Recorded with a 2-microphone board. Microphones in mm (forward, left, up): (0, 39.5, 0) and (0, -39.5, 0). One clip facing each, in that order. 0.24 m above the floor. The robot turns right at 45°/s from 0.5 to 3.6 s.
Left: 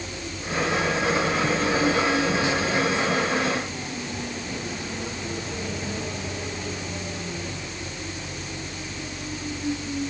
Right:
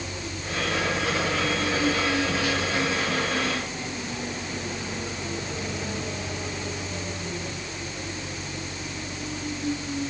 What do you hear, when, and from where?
Only background noise.